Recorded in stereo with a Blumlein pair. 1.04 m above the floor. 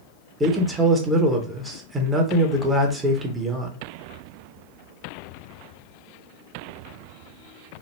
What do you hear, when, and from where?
0.4 s a man speaking: 15° right, 0.8 m